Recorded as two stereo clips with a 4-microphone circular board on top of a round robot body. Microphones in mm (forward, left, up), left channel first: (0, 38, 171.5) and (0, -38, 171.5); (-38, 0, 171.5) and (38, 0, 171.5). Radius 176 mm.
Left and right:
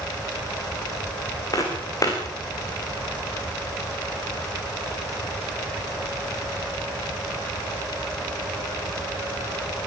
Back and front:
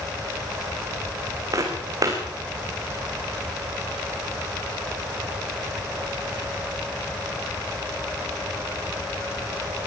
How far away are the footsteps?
About 4 m.